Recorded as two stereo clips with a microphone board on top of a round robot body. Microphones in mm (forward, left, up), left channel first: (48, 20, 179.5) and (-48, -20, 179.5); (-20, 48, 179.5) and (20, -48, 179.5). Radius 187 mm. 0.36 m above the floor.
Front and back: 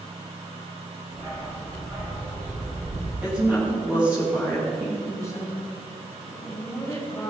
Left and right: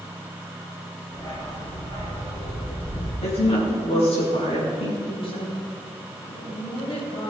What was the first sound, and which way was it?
A dog barking, 170° left.